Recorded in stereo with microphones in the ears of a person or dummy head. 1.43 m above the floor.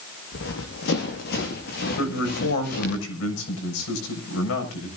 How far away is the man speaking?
About 7 m.